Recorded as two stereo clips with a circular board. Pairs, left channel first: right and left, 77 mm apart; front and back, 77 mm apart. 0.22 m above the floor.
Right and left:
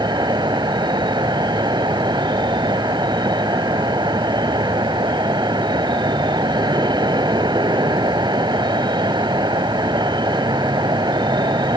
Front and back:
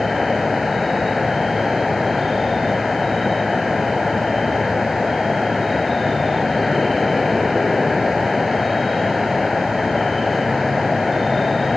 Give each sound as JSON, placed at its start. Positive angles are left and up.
{"t": 0.0, "sound": "an insect", "azimuth_deg": 90}